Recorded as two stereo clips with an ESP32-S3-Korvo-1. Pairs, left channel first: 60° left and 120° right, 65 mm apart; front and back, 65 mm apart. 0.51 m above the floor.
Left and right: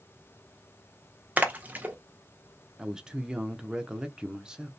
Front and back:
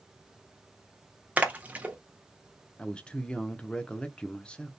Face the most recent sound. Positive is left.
turn(degrees=-55)